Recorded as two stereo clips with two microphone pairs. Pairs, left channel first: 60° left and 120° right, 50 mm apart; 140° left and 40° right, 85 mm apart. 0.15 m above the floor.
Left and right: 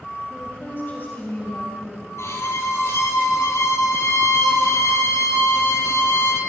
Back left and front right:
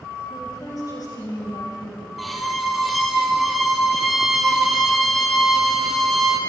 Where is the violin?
50° left, 1.9 m.